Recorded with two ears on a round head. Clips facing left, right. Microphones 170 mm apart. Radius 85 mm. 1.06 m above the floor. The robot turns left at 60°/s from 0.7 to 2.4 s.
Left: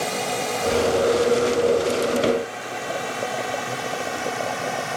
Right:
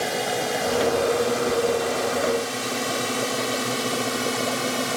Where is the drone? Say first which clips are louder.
Even; 5° right (ahead or behind); by 5.0 s 50° right (ahead or behind).